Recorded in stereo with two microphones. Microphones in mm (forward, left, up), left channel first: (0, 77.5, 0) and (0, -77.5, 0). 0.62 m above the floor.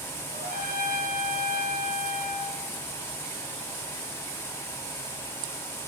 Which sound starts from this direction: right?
A trumpet, at 0.3 s.